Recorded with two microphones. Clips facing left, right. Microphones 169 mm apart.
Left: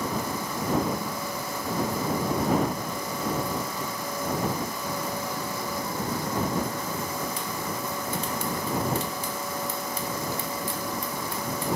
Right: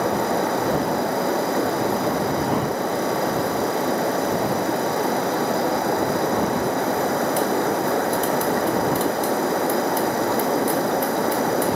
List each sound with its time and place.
0.0 s running water: 70° right (ahead or behind)